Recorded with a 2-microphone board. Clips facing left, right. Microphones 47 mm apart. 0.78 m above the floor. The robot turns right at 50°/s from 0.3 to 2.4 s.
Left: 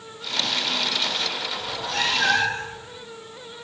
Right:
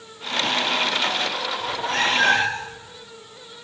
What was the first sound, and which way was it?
A cat meowing, 160° right.